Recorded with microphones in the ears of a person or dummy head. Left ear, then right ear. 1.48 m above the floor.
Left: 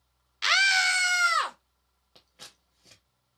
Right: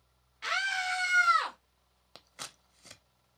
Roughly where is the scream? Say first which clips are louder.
Left 9 dB; left.